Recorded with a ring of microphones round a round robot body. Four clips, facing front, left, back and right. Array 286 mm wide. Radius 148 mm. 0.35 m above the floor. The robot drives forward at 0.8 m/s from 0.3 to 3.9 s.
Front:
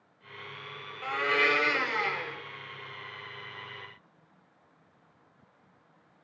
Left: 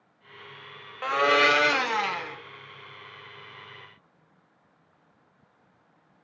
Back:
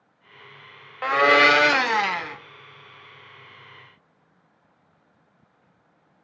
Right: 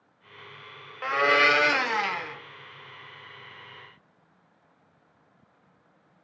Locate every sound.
1.0 s a blender: 170° left, 0.7 m; by 2.4 s 175° left, 1.7 m